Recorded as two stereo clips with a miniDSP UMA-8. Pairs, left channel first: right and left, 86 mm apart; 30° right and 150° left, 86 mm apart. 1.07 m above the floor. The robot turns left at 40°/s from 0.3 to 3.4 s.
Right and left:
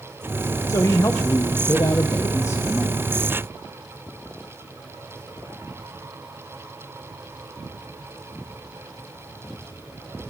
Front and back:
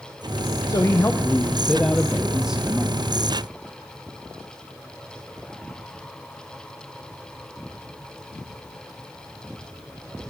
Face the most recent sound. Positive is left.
turn(degrees=-165)